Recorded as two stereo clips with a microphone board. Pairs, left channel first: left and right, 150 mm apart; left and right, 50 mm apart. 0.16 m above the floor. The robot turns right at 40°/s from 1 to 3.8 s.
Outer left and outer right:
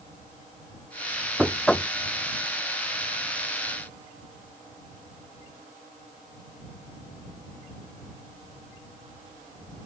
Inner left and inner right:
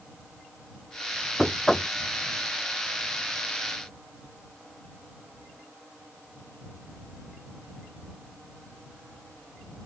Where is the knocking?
5° right (ahead or behind); by 1.9 s 15° left (ahead or behind).